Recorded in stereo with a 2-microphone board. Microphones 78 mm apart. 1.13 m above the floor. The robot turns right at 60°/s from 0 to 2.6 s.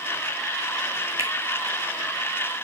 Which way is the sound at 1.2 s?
35° right (ahead or behind).